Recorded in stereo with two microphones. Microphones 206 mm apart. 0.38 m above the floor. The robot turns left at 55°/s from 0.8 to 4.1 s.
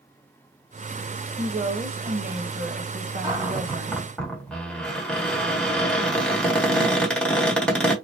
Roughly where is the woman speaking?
Ahead.